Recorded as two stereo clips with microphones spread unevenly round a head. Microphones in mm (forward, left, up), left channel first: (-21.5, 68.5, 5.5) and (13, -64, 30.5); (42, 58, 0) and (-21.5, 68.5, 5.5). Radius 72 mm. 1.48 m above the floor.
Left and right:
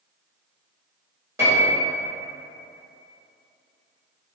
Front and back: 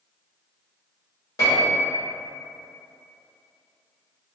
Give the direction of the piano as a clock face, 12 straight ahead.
1 o'clock.